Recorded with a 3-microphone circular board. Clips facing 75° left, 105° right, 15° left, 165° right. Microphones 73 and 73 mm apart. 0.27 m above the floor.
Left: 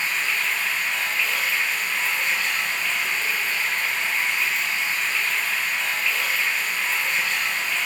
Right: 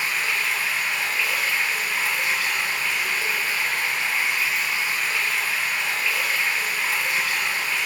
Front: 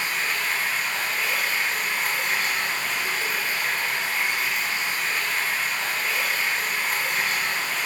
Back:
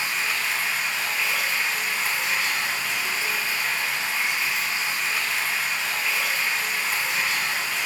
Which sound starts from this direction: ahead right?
Running water, at 0.0 s.